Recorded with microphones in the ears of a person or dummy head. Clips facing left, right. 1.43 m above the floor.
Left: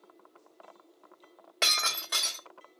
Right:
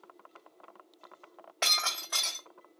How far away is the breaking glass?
About 1.3 m.